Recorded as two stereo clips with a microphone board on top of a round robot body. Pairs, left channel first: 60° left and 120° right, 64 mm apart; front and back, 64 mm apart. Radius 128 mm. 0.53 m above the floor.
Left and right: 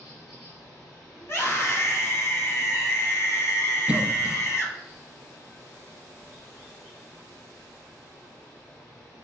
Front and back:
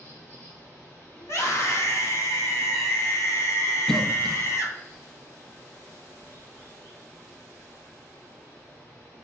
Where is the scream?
25° left, 1.7 m.